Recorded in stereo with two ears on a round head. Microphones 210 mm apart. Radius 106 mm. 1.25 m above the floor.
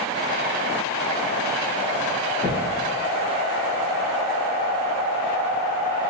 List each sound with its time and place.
2.4 s footsteps: 5° left (ahead or behind), 1.2 m